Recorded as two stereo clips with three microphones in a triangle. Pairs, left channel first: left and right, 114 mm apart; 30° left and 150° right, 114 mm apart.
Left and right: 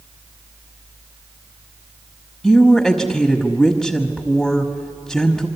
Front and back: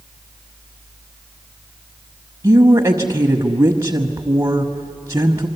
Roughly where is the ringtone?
I don't hear a ringtone.